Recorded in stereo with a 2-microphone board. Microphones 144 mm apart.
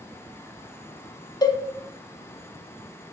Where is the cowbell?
25° left (ahead or behind), 0.8 m.